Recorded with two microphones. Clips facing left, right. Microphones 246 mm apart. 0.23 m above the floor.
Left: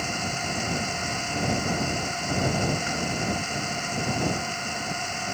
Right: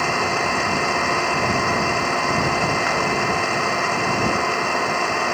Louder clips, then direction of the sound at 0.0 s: Right 9 dB; 80° right.